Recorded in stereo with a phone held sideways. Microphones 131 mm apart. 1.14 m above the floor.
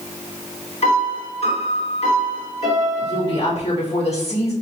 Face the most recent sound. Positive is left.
turn(degrees=55)  # may be behind; listen again after turning